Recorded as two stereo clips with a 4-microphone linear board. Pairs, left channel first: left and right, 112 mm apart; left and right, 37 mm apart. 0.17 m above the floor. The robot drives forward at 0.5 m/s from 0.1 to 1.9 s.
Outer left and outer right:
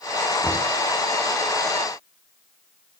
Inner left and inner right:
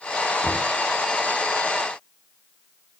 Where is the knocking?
10° left (ahead or behind), 0.8 m; by 0.7 s 5° left (ahead or behind), 0.8 m.